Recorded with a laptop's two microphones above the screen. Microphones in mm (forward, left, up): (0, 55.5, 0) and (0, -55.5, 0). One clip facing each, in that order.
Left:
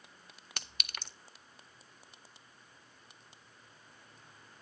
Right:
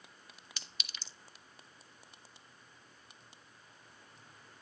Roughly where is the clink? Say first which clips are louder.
Left 7 dB; left.